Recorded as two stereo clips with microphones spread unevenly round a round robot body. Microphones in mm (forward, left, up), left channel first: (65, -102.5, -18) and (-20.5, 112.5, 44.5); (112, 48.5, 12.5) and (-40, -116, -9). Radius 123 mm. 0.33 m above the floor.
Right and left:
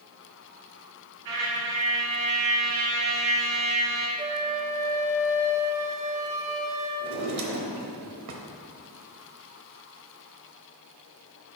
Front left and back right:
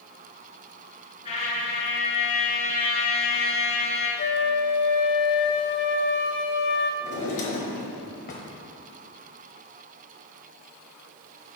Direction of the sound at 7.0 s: 105° left.